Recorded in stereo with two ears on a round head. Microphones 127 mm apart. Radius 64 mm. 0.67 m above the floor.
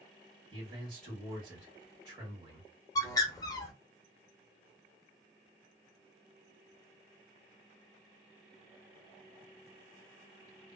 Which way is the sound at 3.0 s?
25° left (ahead or behind).